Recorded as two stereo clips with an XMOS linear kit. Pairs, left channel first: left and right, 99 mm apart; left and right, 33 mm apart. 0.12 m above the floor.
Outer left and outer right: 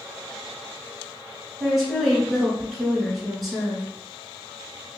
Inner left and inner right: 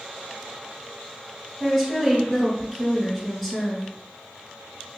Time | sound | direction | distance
1.6 | a woman speaking | centre (ahead or behind) | 1.3 m